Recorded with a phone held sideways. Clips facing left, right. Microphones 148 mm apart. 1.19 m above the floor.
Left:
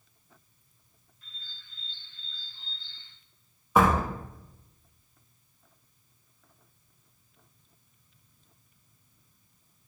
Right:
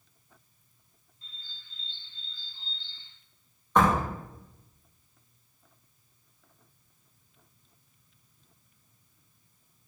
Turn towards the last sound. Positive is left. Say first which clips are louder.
# left 1 dB
turn(degrees=5)  # may be behind; listen again after turning